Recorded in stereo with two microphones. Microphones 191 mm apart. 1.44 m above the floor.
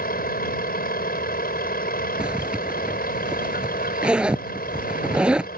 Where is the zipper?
5° right (ahead or behind).